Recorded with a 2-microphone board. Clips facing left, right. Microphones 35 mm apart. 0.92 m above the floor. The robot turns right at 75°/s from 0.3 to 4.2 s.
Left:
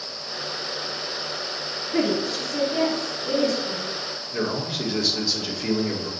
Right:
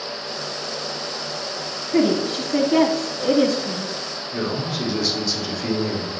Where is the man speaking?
10° left (ahead or behind), 2.5 m.